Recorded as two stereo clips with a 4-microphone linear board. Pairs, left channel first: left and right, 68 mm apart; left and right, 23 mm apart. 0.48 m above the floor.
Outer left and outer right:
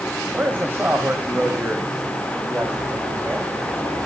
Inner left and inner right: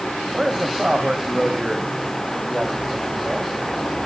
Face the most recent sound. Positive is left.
turn(degrees=-30)  # may be behind; listen again after turning